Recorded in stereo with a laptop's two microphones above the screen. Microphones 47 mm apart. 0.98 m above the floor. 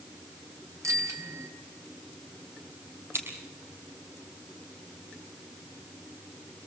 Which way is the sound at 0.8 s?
85° right.